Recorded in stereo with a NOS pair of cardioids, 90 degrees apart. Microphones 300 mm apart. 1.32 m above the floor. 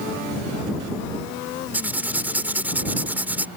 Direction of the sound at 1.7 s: 5° right.